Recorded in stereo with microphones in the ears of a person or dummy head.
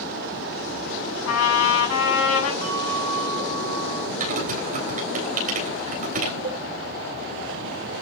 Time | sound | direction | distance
1.3 | a trumpet | 85° left | 7.5 m
2.6 | a bell | 85° right | 3 m
4.2 | typing on a keyboard | 45° right (ahead or behind) | 3.5 m
6.4 | a cowbell | 35° right (ahead or behind) | 3 m